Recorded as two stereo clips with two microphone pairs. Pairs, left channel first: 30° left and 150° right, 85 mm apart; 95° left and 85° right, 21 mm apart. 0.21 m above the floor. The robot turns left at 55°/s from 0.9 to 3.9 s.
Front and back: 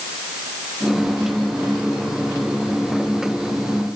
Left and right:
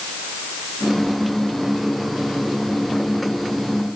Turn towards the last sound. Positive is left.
No sound to turn to.